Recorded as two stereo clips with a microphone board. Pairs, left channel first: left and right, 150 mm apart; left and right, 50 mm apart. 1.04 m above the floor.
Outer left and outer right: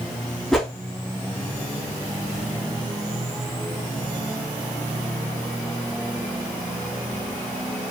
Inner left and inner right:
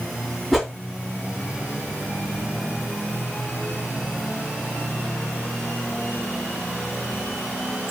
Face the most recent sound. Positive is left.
turn(degrees=0)  # may be behind; listen again after turning